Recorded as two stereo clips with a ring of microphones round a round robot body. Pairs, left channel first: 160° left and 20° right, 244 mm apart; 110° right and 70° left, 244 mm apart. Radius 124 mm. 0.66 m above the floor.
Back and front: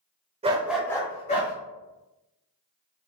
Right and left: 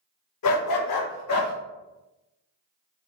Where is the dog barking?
90° right, 0.7 m; by 1.5 s 145° right, 1.3 m.